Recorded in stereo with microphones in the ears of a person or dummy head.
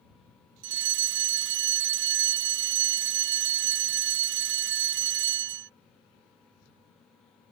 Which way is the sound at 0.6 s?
65° right (ahead or behind).